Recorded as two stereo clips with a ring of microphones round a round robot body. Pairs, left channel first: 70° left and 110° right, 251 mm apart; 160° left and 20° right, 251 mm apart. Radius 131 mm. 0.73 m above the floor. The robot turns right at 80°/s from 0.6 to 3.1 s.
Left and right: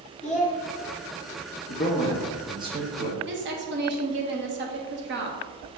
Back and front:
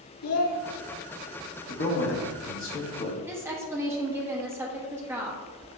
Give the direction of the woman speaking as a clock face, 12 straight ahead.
3 o'clock.